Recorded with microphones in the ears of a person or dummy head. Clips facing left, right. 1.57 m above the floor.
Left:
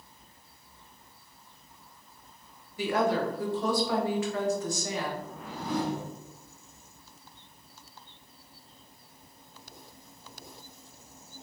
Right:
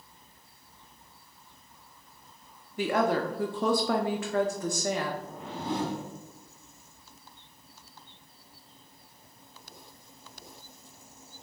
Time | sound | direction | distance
2.8 | a woman speaking | 45° right (ahead or behind) | 0.6 m
5.2 | a whoosh | 25° right (ahead or behind) | 0.5 m